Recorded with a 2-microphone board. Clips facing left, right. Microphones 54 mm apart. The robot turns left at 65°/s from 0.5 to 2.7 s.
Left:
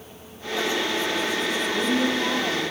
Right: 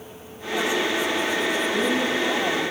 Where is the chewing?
No chewing in this recording.